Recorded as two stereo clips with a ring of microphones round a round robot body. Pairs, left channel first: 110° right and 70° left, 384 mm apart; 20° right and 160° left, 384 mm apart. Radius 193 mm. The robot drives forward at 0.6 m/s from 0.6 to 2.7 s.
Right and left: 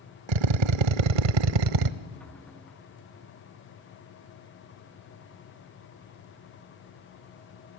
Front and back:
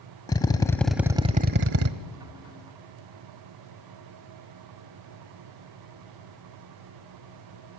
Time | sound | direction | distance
0.3 | a drill | 60° left | 1.0 m